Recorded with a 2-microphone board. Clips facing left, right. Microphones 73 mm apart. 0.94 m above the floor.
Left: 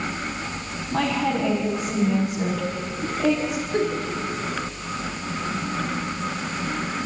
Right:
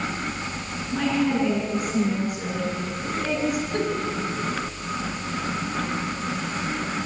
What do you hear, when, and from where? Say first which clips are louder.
0.9 s a woman speaking: even; 75° left (ahead or behind), 6 m
3.7 s a giggle: left 2 dB; 15° left (ahead or behind), 4.5 m